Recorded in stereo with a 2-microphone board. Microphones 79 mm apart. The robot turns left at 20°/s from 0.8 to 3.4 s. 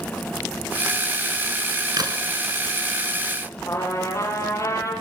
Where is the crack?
55° right (ahead or behind), 3.5 m; by 2.2 s 60° right (ahead or behind), 3.5 m.